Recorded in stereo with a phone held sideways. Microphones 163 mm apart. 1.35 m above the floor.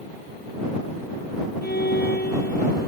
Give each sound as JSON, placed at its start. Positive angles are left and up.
{"t": 1.6, "sound": "a violin", "side_deg": 75}